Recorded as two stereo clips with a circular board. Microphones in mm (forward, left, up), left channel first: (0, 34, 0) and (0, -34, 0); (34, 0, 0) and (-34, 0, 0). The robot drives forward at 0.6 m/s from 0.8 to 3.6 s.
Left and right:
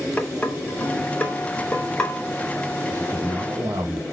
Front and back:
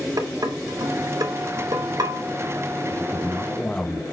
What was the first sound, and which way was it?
Dishes clattering, 160° left.